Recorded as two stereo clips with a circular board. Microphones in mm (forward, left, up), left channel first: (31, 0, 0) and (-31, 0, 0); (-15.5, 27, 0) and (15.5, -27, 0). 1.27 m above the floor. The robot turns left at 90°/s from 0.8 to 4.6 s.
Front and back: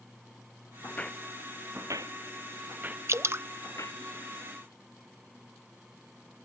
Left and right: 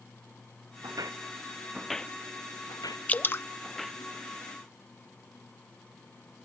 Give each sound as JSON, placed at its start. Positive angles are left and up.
{"t": 0.8, "sound": "footsteps", "azimuth_deg": -55}
{"t": 3.1, "sound": "dripping", "azimuth_deg": 175}